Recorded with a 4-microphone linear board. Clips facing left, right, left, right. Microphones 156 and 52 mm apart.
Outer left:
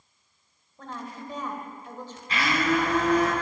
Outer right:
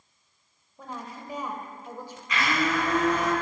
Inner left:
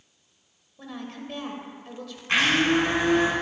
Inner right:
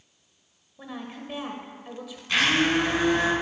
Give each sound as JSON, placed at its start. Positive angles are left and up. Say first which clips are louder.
{"t": 0.8, "sound": "a woman speaking", "louder": "outer left 1 dB, even", "side_deg": -10, "distance_m": 1.4}
{"t": 2.3, "sound": "a blender", "louder": "outer left 2 dB, inner left 1 dB", "side_deg": 30, "distance_m": 4.0}